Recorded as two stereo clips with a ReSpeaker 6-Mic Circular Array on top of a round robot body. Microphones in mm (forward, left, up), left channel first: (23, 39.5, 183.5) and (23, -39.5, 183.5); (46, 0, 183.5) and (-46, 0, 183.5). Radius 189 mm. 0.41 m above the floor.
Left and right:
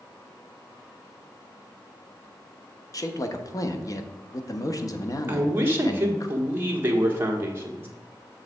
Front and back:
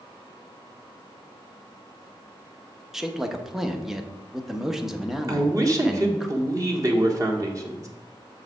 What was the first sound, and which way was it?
A man speaking, 95° left.